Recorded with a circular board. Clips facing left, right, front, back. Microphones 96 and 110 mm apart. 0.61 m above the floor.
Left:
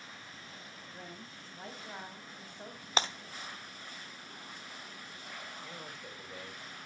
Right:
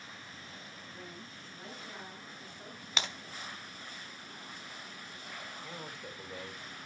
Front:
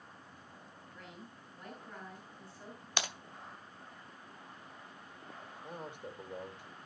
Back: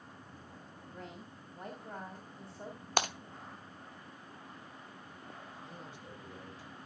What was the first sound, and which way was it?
A woman speaking, 145° left.